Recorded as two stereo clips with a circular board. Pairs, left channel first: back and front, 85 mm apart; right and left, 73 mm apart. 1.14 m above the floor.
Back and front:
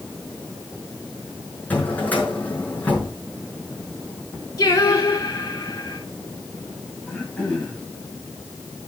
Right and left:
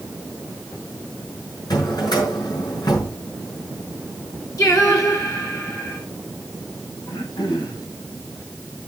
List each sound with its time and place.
1.7 s a drawer: 110° right, 6 m
4.6 s singing: 130° right, 4.5 m
7.1 s throat clearing: 100° right, 5.5 m